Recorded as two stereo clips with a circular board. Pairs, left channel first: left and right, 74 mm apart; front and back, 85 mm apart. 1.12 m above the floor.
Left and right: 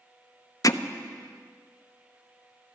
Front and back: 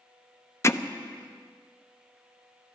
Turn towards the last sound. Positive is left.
turn(degrees=55)